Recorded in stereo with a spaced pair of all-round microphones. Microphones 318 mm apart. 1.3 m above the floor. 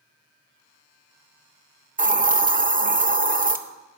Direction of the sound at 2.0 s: 25° right (ahead or behind).